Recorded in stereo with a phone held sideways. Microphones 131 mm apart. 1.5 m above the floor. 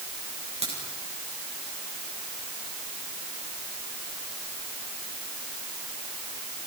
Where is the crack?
50° right (ahead or behind), 8 m.